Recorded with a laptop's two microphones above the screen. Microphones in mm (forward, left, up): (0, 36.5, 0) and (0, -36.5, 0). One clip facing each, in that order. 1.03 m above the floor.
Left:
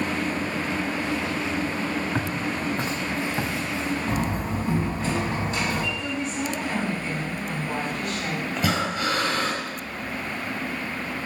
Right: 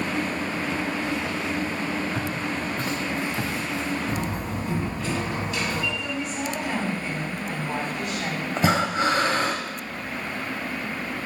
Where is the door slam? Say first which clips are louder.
Left 2 dB; 35° left (ahead or behind), 4.5 m.